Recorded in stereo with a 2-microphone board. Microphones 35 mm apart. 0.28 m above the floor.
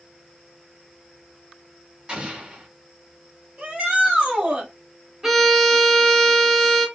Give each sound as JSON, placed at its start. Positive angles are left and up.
{"t": 2.1, "sound": "an explosion", "side_deg": -30, "distance_m": 1.0}
{"t": 3.6, "sound": "a shout", "side_deg": -45, "distance_m": 1.4}
{"t": 5.2, "sound": "a violin", "side_deg": -10, "distance_m": 0.7}